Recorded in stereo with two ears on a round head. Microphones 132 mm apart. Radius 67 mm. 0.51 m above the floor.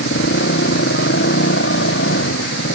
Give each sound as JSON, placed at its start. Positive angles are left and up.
{"t": 0.0, "sound": "a motorcycle", "side_deg": 75}